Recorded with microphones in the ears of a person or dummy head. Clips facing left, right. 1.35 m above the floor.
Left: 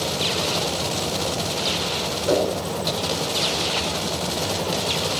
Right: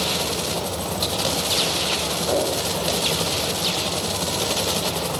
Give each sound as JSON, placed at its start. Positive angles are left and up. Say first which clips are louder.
{"t": 2.3, "sound": "a whoosh", "louder": "left 2 dB", "side_deg": 35, "distance_m": 3.5}